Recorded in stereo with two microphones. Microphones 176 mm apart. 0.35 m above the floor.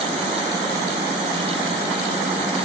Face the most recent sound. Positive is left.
No sound to turn to.